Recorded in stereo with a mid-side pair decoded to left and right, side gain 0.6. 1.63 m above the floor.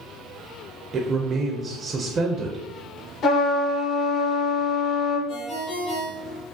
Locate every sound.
0.9 s a man speaking: 35° right, 0.8 m
3.2 s a trumpet: 60° left, 1.4 m
5.3 s a ringtone: 60° left, 1.9 m